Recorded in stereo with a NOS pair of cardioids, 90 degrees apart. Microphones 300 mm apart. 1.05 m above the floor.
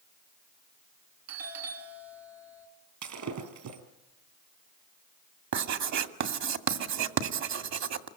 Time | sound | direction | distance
1.3 | a doorbell | 60° right | 2.5 m
3.0 | breaking glass | 70° right | 4 m
5.5 | writing | 60° right | 2 m